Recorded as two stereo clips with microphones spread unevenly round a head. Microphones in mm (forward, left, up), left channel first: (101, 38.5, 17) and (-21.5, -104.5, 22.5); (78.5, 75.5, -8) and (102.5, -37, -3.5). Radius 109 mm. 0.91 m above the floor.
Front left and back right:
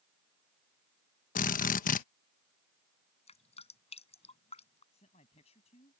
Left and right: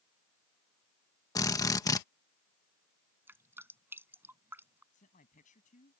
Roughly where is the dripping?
Ahead.